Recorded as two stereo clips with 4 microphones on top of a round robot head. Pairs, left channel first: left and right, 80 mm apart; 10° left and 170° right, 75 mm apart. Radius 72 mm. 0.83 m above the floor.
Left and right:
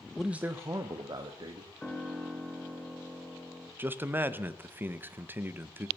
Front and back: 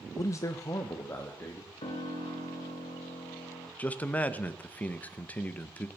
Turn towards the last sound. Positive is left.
turn(degrees=-45)